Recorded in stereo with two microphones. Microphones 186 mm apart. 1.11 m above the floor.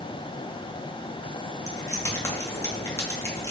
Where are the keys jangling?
15° left (ahead or behind), 0.8 m.